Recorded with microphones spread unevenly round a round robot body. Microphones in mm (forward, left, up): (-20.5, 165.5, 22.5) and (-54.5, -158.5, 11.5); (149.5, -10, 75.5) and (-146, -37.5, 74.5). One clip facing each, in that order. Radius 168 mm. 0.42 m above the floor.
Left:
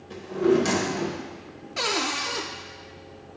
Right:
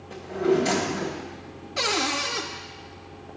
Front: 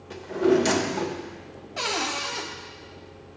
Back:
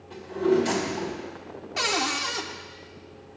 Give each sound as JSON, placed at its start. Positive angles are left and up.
{"t": 0.1, "sound": "a drawer", "azimuth_deg": 15, "distance_m": 1.1}
{"t": 1.8, "sound": "a cupboard door", "azimuth_deg": 175, "distance_m": 0.8}